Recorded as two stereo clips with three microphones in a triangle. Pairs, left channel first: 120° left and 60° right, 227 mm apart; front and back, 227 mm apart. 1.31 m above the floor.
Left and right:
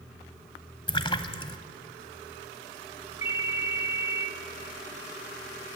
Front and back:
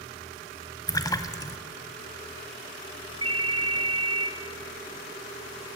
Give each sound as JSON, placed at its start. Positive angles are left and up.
{"t": 0.9, "sound": "a splash", "azimuth_deg": 65, "distance_m": 1.4}
{"t": 3.2, "sound": "a ringtone", "azimuth_deg": 180, "distance_m": 1.4}